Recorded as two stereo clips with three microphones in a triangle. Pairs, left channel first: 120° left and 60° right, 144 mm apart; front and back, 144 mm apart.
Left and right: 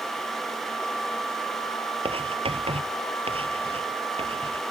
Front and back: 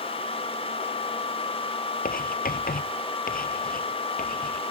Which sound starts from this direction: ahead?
Writing, at 2.0 s.